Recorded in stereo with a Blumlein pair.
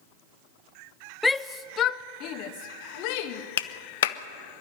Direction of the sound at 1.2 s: 5° left.